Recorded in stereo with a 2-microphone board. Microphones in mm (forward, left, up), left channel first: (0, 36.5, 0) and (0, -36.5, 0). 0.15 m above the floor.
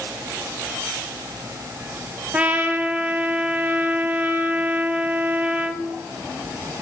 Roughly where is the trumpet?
Right.